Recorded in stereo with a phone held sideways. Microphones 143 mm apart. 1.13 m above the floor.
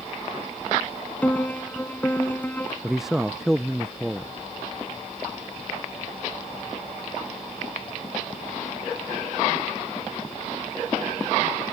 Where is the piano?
10° left (ahead or behind).